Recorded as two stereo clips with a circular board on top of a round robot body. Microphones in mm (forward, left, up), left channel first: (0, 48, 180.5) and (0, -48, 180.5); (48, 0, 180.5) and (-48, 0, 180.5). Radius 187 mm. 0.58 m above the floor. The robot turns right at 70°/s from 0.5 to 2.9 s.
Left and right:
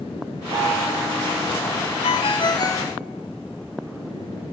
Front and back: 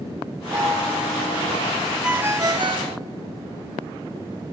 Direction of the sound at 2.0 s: 95° left.